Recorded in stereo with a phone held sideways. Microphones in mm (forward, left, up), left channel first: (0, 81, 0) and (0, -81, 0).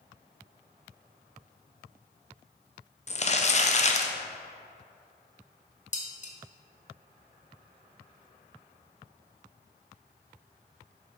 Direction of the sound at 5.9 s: 45° left (ahead or behind).